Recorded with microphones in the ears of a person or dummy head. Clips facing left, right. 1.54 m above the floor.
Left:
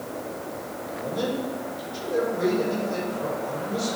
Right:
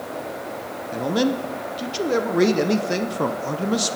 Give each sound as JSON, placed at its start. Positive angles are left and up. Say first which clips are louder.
{"t": 0.9, "sound": "a man speaking", "louder": "right 7 dB", "side_deg": -80, "distance_m": 0.8}